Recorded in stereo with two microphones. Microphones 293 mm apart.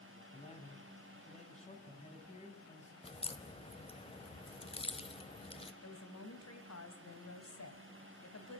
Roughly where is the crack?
Centre.